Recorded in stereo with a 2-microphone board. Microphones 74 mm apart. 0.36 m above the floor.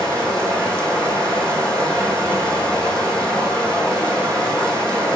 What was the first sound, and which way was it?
Running water, 10° left (ahead or behind).